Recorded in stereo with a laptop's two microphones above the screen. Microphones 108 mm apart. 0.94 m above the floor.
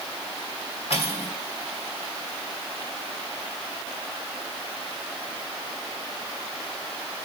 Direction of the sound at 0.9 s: 65° left (ahead or behind).